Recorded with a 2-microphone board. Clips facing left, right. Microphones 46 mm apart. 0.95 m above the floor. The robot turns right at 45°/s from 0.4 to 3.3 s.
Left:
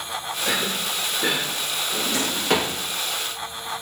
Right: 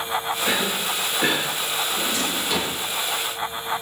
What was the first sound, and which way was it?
A cough, 15° right (ahead or behind).